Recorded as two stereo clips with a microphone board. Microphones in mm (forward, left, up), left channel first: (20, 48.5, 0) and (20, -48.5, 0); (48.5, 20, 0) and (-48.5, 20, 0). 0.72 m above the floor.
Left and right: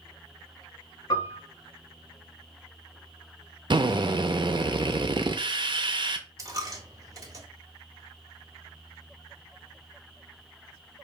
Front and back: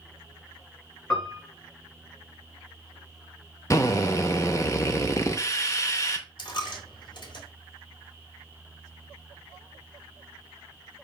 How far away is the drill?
About 0.7 m.